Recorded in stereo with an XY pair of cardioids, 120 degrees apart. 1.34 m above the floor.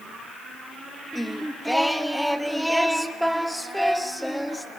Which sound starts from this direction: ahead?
Singing, at 1.1 s.